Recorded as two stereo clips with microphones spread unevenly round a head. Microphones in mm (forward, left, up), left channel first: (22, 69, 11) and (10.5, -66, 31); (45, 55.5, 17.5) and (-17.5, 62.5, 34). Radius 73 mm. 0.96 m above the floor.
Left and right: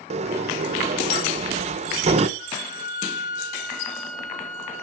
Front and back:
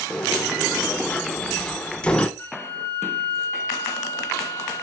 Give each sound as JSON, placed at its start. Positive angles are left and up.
{"t": 0.1, "sound": "a sliding door", "azimuth_deg": -60, "distance_m": 0.6}
{"t": 2.4, "sound": "a flute", "azimuth_deg": 55, "distance_m": 2.0}